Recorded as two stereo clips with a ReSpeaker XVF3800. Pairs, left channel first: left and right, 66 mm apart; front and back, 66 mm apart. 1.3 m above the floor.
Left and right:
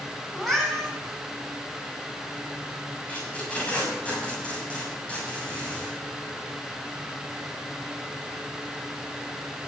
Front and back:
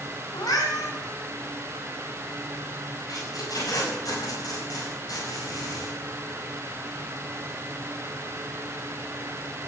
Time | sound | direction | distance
0.3 | a cat meowing | 5° left | 5 m
3.1 | tape being pulled | 20° left | 6.5 m